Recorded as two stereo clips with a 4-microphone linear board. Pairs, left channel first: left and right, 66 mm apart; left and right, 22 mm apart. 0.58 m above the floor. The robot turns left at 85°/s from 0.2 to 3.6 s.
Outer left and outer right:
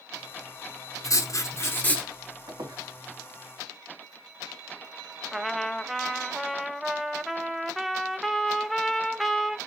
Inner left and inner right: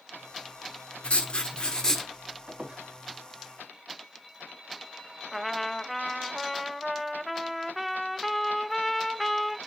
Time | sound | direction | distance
1.0 | writing | 100° left | 1.5 m
2.5 | a squeak | 65° right (ahead or behind) | 3 m
5.3 | a trumpet | centre (ahead or behind) | 0.9 m